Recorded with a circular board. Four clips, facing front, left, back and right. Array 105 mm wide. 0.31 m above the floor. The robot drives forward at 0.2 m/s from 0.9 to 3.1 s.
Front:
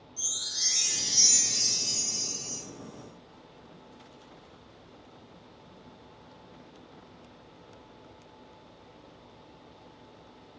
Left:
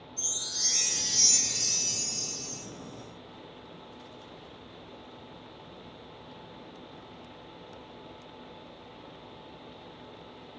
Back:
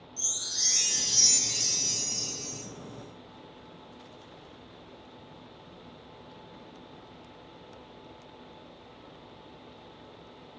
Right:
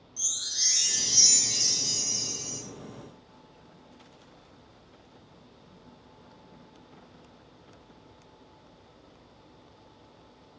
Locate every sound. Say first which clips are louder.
0.2 s a chime: left 1 dB, back 1 dB; 90° right, 1.1 m; by 2.6 s 105° right, 1.2 m